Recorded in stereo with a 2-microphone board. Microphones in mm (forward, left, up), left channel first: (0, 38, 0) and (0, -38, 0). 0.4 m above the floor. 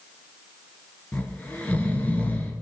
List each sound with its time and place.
1.1 s snoring: 20° left (ahead or behind), 3 m